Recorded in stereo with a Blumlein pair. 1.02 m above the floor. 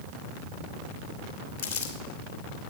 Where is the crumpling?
50° left, 2.5 m.